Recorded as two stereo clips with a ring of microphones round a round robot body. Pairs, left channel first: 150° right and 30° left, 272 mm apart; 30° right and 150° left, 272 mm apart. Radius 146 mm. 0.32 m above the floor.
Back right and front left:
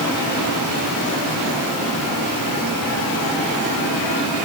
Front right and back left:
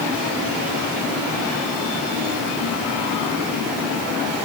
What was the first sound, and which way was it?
Only background noise.